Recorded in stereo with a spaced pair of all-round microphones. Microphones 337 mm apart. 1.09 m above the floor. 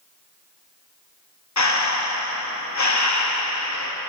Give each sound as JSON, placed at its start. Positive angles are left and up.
{"t": 1.6, "sound": "breathing", "side_deg": 55, "distance_m": 0.7}